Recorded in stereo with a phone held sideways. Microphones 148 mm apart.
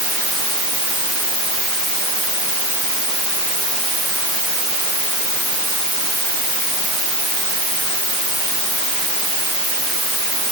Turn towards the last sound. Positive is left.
No sound to turn to.